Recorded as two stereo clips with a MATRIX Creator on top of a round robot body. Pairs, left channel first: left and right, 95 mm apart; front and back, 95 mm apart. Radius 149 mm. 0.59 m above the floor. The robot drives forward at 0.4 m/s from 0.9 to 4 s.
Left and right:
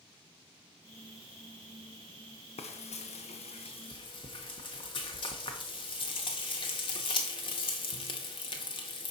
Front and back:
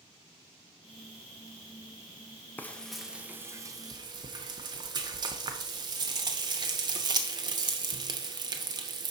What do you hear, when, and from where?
2.6 s frying: 70° left, 0.5 m; by 9.1 s 130° left, 0.6 m